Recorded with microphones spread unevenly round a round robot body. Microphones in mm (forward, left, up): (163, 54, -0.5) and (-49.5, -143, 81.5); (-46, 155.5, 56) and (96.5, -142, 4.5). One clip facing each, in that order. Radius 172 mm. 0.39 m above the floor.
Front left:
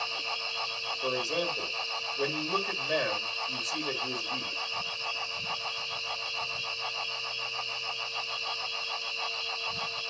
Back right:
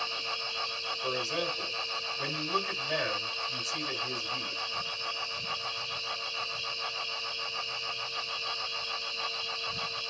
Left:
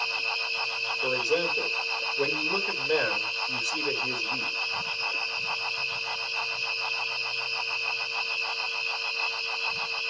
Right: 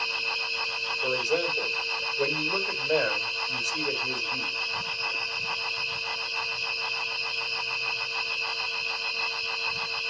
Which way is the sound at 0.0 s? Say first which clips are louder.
Even, even; 25° left.